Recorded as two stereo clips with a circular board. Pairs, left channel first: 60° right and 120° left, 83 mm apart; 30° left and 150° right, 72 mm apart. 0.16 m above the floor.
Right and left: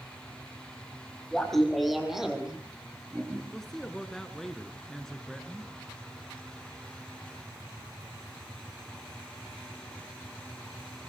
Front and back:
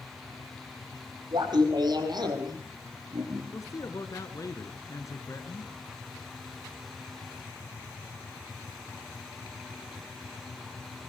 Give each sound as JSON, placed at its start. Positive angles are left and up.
{"t": 1.3, "sound": "laughter", "azimuth_deg": -145, "distance_m": 6.0}
{"t": 3.5, "sound": "a man speaking", "azimuth_deg": 25, "distance_m": 2.5}